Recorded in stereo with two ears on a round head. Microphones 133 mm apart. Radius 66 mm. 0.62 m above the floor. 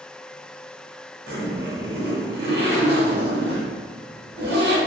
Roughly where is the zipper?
Right.